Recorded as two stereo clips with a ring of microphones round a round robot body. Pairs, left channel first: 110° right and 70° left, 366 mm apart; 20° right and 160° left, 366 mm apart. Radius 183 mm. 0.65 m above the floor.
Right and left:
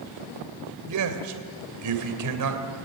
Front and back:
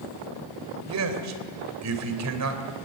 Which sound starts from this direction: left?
A man speaking, at 0.9 s.